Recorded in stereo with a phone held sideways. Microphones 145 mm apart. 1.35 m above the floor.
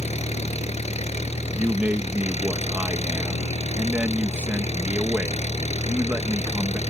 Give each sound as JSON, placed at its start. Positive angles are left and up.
{"t": 0.0, "sound": "an engine running", "side_deg": 50}
{"t": 1.6, "sound": "a man speaking", "side_deg": -15}